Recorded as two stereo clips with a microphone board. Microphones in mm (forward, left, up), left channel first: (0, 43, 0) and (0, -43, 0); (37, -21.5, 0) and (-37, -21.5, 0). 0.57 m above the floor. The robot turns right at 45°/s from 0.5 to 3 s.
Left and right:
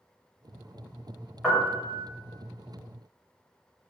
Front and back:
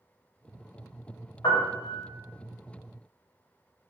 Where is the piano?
5° left, 1.0 m; by 2.0 s 30° left, 1.0 m.